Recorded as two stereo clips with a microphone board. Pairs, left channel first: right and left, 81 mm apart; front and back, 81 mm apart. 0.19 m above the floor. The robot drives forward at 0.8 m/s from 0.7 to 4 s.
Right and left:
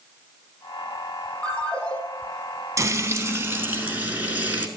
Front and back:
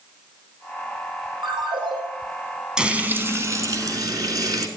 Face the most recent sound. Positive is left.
turn(degrees=155)